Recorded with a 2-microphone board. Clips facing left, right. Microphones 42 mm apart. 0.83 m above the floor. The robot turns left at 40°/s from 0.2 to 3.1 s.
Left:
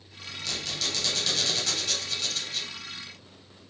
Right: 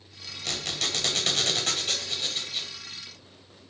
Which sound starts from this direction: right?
A squeak, at 0.5 s.